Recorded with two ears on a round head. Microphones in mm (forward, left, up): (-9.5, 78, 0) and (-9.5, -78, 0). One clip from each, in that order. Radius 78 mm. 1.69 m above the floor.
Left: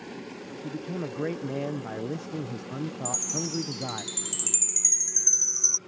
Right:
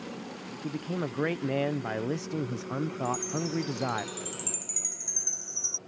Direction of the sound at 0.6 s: 60° right (ahead or behind).